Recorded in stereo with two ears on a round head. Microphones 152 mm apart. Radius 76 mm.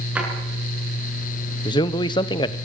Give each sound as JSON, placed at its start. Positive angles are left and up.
{"t": 0.1, "sound": "a drawer", "side_deg": -10, "distance_m": 8.0}
{"t": 1.6, "sound": "a man speaking", "side_deg": 25, "distance_m": 1.0}